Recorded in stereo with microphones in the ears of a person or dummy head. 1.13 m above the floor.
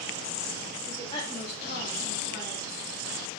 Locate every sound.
0.9 s a woman speaking: 10° left (ahead or behind), 0.7 m; by 2.7 s 35° left (ahead or behind), 1.2 m